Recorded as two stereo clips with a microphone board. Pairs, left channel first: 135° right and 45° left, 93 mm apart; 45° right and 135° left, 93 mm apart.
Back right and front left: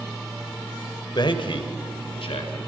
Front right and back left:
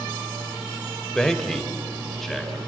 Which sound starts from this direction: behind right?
A man speaking, at 1.1 s.